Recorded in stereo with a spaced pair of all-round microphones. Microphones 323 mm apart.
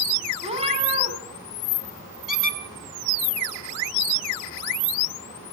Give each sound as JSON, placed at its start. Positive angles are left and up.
{"t": 0.4, "sound": "a cat meowing", "side_deg": -20, "distance_m": 4.0}
{"t": 2.3, "sound": "a squeak", "side_deg": 75, "distance_m": 2.0}